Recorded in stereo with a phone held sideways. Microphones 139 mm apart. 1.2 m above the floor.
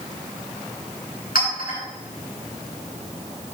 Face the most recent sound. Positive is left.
turn(degrees=80)